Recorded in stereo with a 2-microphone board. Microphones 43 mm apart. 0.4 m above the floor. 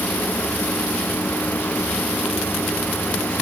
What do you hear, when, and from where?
Only background noise.